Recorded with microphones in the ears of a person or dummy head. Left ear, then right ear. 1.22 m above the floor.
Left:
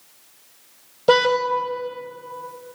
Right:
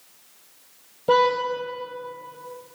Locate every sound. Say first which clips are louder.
1.1 s a car horn: left 2 dB; 50° left (ahead or behind), 3.5 m